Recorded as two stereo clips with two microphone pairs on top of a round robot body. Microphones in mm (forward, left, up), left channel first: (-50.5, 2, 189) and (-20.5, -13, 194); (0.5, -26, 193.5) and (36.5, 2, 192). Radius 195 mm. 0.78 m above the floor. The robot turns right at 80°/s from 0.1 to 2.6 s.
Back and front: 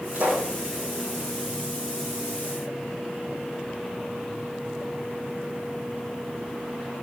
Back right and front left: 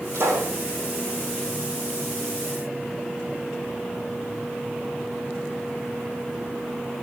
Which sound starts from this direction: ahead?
A pop, at 0.1 s.